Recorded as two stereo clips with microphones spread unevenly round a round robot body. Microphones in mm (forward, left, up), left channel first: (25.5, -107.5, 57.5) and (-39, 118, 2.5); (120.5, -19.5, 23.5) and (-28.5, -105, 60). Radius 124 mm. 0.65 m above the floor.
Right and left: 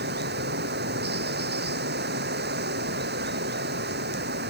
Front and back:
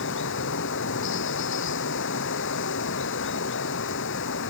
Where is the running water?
55° left.